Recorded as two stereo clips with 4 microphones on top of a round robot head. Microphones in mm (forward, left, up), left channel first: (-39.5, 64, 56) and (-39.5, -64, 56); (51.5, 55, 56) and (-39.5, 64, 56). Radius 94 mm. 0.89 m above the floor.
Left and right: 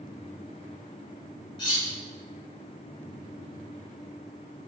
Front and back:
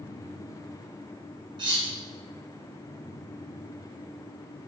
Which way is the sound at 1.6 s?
140° left.